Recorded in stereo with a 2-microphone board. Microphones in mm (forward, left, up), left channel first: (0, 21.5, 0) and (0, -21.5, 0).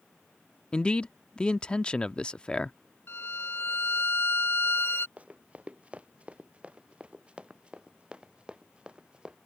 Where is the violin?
60° left (ahead or behind).